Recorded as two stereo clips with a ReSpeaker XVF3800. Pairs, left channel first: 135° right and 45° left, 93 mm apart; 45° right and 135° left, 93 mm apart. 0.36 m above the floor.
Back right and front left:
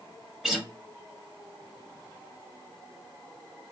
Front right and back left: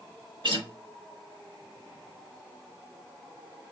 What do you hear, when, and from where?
0.4 s a guitar: 130° left, 0.9 m